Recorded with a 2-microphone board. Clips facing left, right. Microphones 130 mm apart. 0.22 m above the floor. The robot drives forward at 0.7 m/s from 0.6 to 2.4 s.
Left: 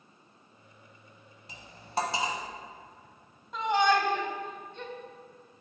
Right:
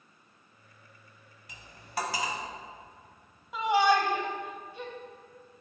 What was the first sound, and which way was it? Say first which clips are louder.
Cutlery clinking: left 4 dB; 30° left (ahead or behind).